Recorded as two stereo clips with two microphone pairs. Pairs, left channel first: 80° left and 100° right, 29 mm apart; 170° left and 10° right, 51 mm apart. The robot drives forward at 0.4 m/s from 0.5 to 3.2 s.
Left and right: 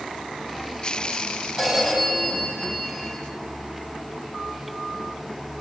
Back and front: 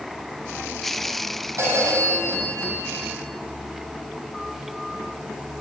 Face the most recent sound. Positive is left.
turn(degrees=-25)